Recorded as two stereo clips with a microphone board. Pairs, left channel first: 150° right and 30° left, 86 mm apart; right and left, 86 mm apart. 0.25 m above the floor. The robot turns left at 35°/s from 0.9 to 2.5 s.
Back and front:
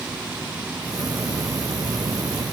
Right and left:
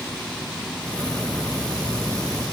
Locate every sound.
Only background noise.